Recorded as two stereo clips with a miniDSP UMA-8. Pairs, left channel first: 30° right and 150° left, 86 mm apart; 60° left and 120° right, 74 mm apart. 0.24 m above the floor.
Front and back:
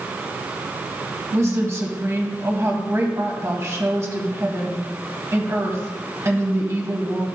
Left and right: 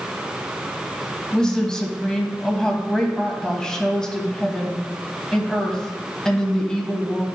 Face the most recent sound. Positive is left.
turn(degrees=130)